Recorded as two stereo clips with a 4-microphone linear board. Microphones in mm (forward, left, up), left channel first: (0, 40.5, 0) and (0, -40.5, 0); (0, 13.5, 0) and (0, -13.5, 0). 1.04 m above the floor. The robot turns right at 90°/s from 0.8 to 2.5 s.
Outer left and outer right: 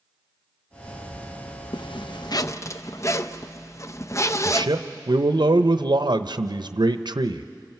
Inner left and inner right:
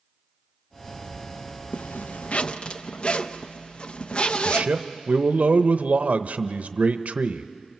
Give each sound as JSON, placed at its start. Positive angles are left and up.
{"t": 1.7, "sound": "a zipper", "azimuth_deg": 70, "distance_m": 0.5}
{"t": 4.5, "sound": "a man speaking", "side_deg": -65, "distance_m": 0.8}